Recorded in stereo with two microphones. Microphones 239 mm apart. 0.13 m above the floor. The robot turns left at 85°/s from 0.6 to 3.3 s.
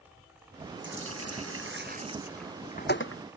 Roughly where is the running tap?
Ahead right.